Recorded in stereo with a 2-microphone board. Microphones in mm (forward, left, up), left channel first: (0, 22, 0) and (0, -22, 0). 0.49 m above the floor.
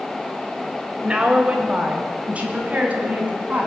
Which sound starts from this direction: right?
A woman speaking, at 1.0 s.